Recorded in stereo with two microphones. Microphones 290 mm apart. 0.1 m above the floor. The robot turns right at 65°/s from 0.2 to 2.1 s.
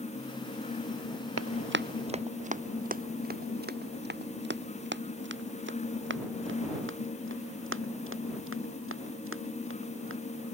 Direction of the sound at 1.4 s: 55° right (ahead or behind).